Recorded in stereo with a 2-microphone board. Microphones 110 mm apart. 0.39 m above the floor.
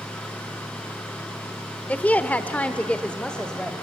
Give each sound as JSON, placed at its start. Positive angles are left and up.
{"t": 1.9, "sound": "a woman speaking", "side_deg": 15, "distance_m": 1.0}